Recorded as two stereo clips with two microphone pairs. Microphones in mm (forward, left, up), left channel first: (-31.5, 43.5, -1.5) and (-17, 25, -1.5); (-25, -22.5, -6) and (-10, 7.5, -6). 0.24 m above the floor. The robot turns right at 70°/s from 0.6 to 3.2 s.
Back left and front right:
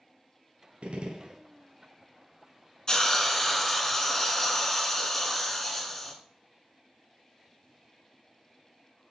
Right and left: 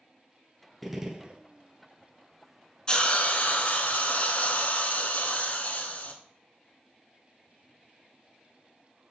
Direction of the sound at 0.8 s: 30° right.